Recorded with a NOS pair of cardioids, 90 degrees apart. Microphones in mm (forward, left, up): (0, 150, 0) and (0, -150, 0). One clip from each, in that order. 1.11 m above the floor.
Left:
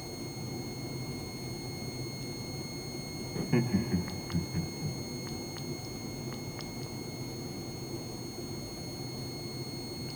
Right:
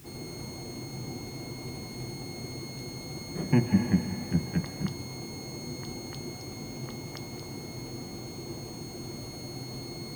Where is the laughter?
Straight ahead, 0.7 m; by 5.0 s 65° right, 1.3 m.